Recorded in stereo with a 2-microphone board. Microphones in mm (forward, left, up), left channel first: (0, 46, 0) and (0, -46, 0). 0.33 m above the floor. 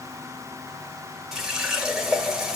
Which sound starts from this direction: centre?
A running tap, at 1.3 s.